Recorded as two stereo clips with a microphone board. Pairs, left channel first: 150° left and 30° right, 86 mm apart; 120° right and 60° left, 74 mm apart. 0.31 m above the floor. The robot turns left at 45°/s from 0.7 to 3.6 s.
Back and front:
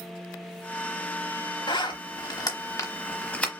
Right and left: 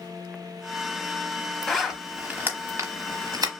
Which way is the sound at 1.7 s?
155° left.